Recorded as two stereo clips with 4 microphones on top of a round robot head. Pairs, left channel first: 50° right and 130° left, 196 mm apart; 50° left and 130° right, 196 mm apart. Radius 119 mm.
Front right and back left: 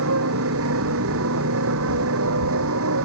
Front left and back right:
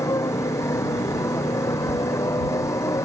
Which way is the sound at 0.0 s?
125° left.